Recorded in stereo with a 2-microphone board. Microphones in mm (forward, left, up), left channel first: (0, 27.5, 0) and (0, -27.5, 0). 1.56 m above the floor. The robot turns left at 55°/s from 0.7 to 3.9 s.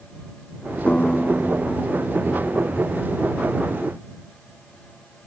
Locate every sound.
0.9 s a guitar: 25° left; by 3.2 s 105° right